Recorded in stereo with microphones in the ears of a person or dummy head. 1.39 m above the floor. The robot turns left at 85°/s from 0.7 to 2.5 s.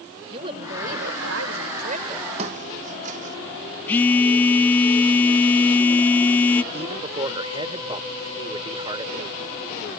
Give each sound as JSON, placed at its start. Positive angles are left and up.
{"t": 0.3, "sound": "a woman speaking", "azimuth_deg": -30}
{"t": 2.4, "sound": "footsteps", "side_deg": -35}
{"t": 3.9, "sound": "a phone buzzing", "side_deg": 10}
{"t": 6.7, "sound": "a man speaking", "side_deg": -25}